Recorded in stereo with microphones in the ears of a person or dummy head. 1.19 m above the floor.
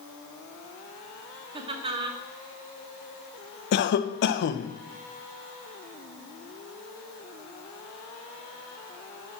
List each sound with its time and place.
1.5 s laughter: 30° right (ahead or behind), 1.1 m
3.7 s a cough: 55° left (ahead or behind), 0.7 m